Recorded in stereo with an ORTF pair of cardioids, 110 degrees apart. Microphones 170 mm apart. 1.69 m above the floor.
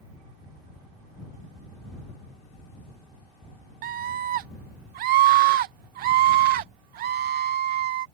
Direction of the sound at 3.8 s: 65° right.